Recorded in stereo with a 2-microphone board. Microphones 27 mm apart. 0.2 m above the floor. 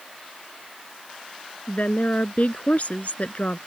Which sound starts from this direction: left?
A woman speaking, at 1.7 s.